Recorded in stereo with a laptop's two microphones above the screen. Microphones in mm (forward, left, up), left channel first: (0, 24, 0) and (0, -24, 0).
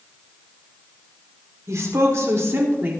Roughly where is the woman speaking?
Right.